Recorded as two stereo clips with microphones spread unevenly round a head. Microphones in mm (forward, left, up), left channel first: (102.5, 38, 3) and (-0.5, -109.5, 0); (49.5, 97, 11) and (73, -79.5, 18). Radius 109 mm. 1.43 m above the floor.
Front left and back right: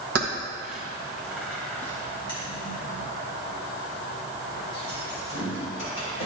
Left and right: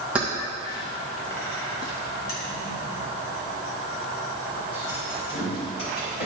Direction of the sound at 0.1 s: 165° right.